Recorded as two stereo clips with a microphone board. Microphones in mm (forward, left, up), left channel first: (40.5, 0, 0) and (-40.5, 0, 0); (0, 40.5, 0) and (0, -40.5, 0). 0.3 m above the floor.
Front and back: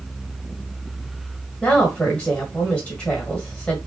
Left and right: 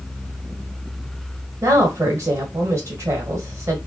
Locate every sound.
1.6 s a woman speaking: 70° right, 1.4 m